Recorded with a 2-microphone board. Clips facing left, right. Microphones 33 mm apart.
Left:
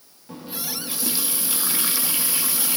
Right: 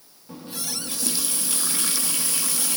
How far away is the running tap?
About 0.8 m.